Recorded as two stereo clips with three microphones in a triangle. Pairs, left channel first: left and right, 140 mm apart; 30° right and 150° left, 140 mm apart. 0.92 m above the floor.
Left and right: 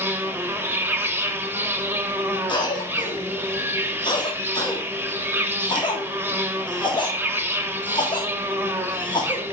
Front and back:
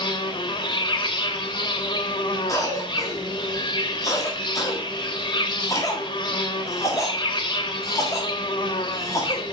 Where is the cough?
35° left, 1.5 m.